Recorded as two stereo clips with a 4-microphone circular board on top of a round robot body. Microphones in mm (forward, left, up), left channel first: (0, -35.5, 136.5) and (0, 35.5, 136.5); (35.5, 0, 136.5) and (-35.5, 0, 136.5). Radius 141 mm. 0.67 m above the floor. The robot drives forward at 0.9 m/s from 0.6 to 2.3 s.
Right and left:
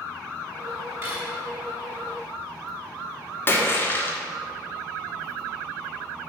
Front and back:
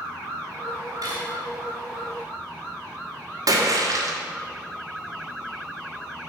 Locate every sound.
1.0 s cutlery clinking: 140° left, 4 m; by 1.3 s 145° left, 4 m
3.5 s a splash: 150° right, 1.9 m